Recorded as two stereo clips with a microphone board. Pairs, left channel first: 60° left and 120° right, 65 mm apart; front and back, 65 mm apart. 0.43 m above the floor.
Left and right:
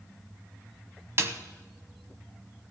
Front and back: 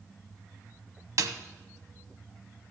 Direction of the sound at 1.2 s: 160° right.